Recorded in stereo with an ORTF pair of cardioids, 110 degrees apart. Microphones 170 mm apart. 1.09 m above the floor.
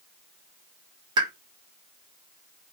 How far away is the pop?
About 0.8 m.